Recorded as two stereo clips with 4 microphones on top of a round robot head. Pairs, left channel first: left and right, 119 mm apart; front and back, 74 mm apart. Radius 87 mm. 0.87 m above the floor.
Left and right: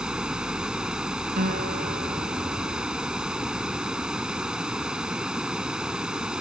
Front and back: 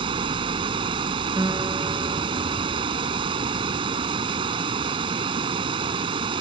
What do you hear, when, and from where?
0.0 s running water: 175° right
1.4 s a guitar: 115° right